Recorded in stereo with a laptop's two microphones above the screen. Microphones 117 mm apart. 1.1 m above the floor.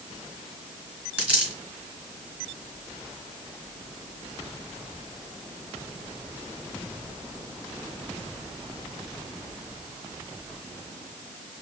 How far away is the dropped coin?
About 2.5 m.